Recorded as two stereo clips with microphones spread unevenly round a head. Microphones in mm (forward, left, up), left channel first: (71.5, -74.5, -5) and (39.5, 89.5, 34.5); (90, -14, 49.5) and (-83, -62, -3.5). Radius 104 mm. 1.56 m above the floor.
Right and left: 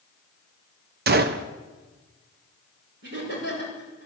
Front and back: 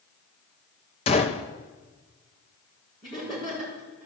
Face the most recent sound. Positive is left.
turn(degrees=85)